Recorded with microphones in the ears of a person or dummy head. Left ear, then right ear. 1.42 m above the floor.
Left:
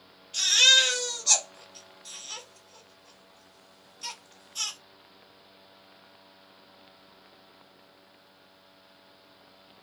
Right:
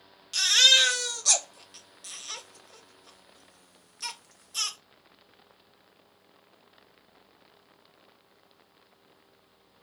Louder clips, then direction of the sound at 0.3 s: Even; 55° right (ahead or behind).